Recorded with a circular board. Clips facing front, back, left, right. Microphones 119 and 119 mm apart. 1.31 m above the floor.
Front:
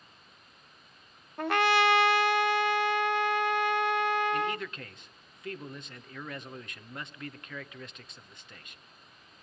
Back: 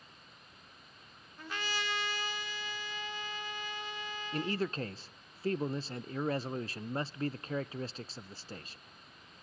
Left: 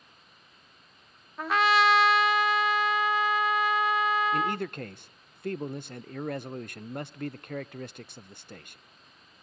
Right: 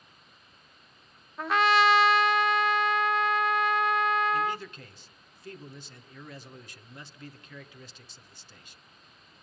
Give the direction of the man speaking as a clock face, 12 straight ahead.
8 o'clock.